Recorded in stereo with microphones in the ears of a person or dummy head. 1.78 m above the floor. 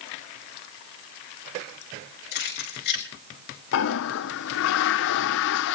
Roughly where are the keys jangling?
Left.